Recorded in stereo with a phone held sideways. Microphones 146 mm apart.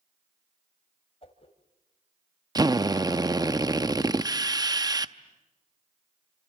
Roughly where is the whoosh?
Left.